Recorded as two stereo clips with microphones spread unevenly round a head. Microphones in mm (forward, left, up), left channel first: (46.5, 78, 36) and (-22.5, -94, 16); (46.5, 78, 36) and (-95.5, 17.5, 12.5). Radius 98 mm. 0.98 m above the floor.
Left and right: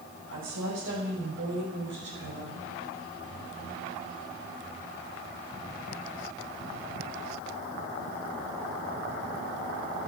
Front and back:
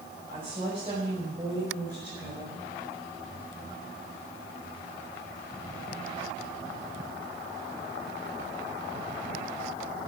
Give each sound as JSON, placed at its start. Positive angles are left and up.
{"t": 0.3, "sound": "a woman speaking", "azimuth_deg": -95, "distance_m": 6.5}